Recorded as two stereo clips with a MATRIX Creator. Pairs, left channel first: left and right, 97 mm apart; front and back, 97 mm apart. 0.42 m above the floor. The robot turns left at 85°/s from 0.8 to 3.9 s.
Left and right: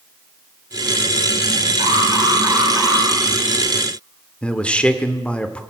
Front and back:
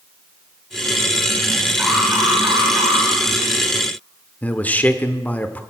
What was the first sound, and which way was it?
An alarm, 100° right.